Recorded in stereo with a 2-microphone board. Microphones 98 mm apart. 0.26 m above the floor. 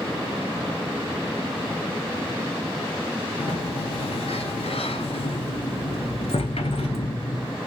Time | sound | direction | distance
3.4 | a sliding door | 80° left | 0.7 m